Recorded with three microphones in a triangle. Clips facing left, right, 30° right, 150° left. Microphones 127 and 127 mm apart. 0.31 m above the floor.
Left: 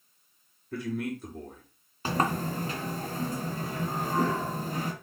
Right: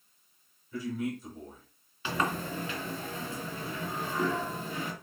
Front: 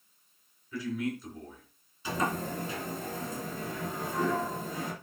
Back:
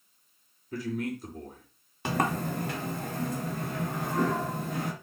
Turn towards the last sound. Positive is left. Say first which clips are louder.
# left 3 dB, back 3 dB
turn(degrees=135)